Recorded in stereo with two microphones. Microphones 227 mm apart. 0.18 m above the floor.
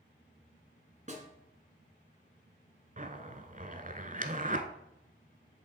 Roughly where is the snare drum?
Right.